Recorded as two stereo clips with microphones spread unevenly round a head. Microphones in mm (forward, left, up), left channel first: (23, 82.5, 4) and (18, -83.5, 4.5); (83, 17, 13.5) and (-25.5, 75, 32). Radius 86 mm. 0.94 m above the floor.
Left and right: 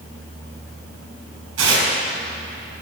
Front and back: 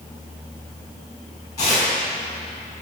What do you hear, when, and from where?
1.6 s tearing paper: 100° right, 4 m